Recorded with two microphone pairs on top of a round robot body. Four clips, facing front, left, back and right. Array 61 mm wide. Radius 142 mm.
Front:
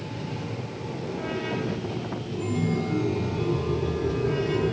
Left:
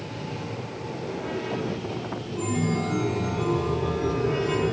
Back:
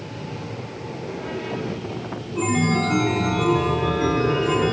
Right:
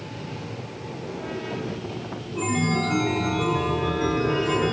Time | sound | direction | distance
2.4 | a chime | 155° right | 0.9 m